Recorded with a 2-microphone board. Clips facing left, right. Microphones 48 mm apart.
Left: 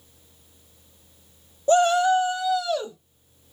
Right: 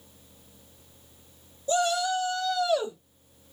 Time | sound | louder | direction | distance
1.7 | a shout | left 8 dB | 45° left (ahead or behind) | 1.0 m